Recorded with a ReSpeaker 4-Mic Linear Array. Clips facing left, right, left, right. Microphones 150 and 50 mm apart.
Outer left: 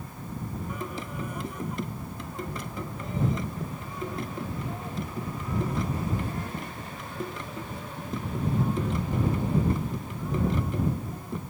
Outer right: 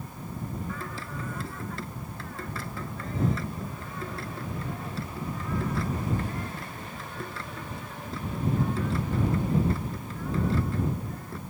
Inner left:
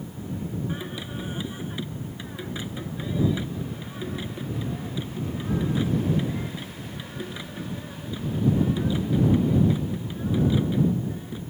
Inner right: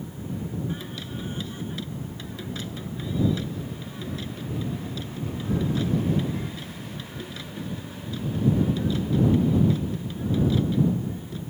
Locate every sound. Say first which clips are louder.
0.7 s singing: outer left 2 dB, inner left 1 dB; 20° left (ahead or behind)